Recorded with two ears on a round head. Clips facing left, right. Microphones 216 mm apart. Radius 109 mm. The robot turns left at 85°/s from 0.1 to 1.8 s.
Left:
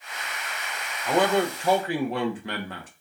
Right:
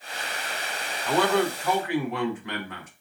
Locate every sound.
1.1 s a man speaking: 10° left (ahead or behind), 0.9 m; by 2.9 s 30° left (ahead or behind), 0.9 m